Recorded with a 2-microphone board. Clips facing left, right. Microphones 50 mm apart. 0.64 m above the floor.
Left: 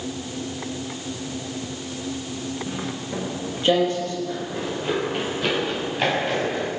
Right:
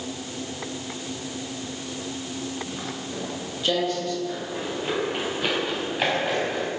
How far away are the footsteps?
About 9 m.